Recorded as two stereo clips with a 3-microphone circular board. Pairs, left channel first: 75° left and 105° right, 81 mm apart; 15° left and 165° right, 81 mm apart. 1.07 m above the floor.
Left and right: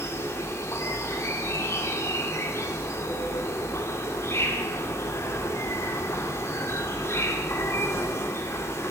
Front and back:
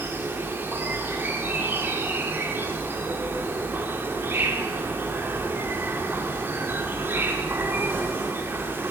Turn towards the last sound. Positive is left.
turn(degrees=130)